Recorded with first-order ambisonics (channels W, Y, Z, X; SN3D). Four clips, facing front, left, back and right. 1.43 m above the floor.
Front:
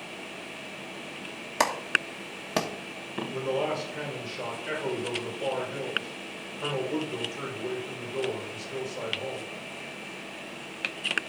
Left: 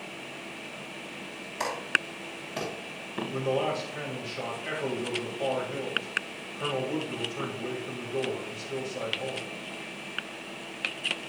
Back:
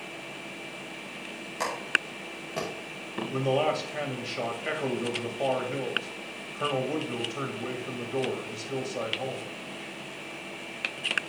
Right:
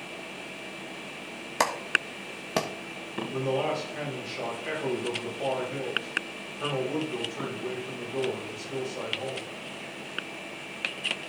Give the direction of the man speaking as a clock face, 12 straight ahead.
6 o'clock.